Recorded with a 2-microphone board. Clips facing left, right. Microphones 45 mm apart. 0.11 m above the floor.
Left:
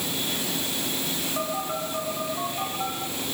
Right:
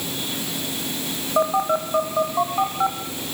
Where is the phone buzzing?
45° right (ahead or behind), 3 m.